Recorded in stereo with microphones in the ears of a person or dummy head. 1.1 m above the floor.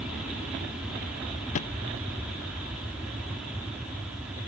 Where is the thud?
40° left (ahead or behind).